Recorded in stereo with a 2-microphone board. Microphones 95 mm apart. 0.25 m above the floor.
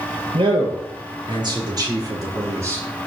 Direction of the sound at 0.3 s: 70° right (ahead or behind).